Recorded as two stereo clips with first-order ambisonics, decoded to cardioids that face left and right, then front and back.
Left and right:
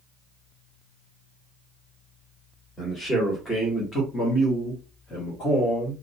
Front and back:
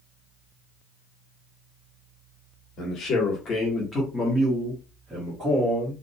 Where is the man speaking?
10° left, 1.2 m; by 5.9 s 140° left, 1.3 m.